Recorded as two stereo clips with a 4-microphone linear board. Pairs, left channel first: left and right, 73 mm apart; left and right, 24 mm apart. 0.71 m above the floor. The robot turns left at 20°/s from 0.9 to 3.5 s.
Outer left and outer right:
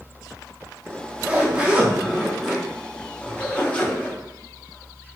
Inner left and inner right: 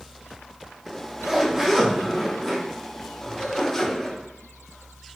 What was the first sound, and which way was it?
A zipper, 145° right.